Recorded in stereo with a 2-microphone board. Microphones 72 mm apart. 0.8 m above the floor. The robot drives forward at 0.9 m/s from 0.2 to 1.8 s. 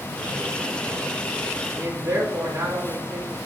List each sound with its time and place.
1.7 s a man speaking: 35° right (ahead or behind), 1.5 m